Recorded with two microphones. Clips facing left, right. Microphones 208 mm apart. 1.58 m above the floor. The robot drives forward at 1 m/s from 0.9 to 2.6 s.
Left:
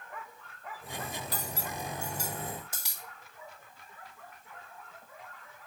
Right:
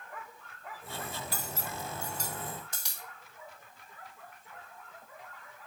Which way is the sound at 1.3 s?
15° left (ahead or behind).